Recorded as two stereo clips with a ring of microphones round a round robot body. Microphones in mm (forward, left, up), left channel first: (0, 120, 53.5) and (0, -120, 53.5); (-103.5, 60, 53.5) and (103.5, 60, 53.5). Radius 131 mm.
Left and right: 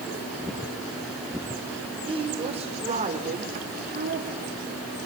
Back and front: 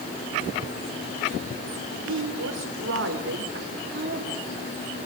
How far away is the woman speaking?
About 3.5 m.